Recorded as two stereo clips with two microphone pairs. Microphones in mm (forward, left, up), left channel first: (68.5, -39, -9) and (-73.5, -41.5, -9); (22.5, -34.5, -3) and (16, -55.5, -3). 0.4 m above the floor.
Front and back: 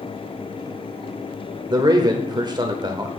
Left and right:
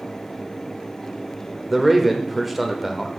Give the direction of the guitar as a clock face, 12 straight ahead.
I don't hear a guitar.